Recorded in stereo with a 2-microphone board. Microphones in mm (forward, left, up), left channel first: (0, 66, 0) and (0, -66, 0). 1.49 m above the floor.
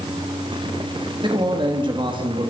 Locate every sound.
1.2 s a man speaking: 35° right (ahead or behind), 3 m